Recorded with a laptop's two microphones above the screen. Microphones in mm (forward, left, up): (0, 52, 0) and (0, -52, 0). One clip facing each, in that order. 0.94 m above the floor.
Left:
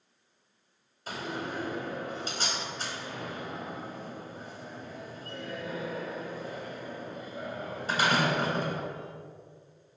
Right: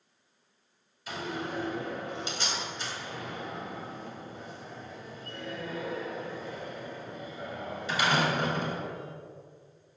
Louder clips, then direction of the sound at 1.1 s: Even; 40° left (ahead or behind).